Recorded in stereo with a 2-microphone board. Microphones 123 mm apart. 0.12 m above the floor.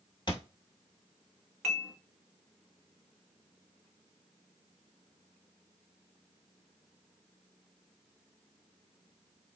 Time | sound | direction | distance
0.3 | a thud | 40° left (ahead or behind) | 1.2 m
1.6 | dishes clattering | centre (ahead or behind) | 1.5 m